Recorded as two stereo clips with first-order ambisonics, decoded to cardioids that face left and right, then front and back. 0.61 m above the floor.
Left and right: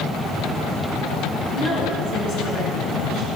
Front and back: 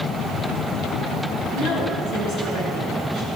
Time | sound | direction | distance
1.5 | a woman speaking | 55° left | 5.5 m